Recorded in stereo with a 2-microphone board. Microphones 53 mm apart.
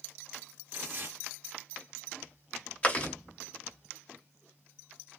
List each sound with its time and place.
0.7 s tearing paper: 45° right (ahead or behind), 1.5 m
2.8 s chewing: 25° left (ahead or behind), 1.0 m